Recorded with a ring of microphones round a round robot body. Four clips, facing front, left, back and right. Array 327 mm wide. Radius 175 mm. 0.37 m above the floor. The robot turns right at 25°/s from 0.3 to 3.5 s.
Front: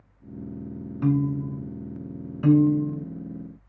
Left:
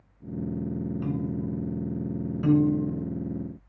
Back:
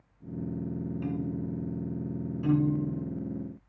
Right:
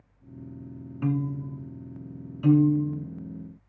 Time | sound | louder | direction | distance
1.0 | a piano | right 6 dB, front 12 dB | 30° right | 0.8 m
2.4 | a piano | right 2 dB, front 8 dB | 15° left | 3 m